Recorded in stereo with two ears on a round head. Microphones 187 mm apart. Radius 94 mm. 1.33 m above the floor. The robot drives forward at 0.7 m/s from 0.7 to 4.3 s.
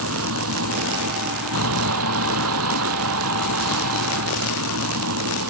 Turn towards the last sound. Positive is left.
turn(degrees=-80)